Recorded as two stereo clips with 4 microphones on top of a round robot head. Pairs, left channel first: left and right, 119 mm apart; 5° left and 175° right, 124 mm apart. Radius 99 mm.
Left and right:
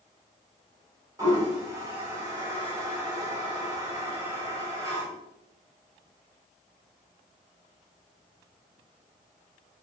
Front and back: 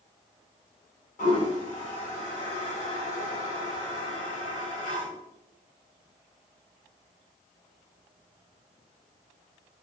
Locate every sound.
1.2 s a toilet flushing: 25° right, 1.4 m